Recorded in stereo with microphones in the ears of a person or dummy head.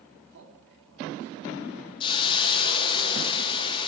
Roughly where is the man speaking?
Right.